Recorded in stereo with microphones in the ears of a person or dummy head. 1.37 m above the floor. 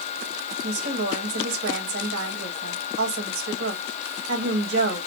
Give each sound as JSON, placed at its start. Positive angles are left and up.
{"t": 0.6, "sound": "a woman speaking", "side_deg": -85, "distance_m": 2.5}